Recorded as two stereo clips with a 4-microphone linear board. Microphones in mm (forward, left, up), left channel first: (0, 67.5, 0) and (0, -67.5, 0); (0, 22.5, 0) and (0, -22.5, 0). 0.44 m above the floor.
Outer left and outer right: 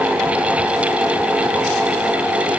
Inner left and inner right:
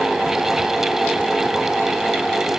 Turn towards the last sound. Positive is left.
No sound to turn to.